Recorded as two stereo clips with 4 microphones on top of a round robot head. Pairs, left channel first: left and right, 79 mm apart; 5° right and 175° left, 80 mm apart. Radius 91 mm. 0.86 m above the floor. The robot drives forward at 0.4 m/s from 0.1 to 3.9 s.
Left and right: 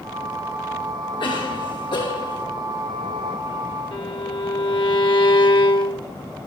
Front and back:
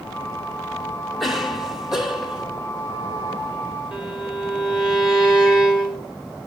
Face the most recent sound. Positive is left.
turn(degrees=95)